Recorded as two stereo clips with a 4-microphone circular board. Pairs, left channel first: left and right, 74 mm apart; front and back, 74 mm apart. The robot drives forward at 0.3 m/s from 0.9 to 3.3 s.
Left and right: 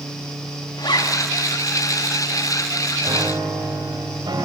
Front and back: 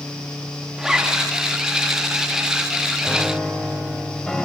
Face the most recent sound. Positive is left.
turn(degrees=-80)